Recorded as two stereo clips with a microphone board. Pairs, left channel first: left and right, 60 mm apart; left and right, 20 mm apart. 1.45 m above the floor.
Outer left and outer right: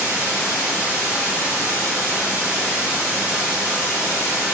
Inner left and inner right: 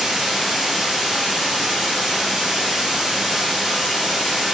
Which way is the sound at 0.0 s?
20° right (ahead or behind).